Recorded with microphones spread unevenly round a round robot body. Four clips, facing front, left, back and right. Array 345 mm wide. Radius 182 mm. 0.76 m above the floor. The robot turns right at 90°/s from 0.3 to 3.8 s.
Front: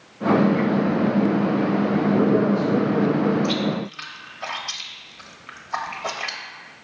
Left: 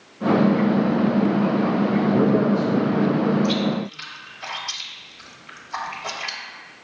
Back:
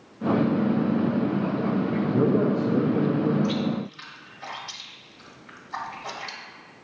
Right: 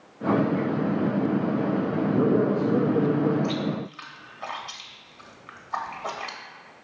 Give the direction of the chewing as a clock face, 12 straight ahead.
1 o'clock.